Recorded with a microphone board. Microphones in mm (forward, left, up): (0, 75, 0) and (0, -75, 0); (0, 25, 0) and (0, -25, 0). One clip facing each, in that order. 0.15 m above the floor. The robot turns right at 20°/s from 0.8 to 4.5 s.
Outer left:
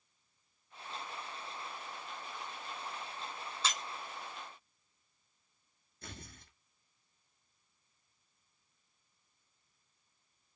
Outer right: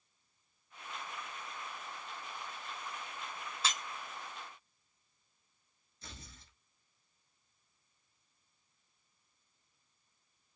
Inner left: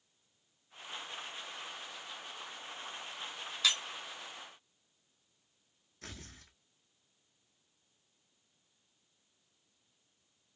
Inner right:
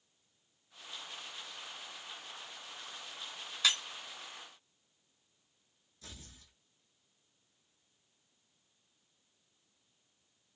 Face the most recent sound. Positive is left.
turn(degrees=55)  # may be behind; listen again after turning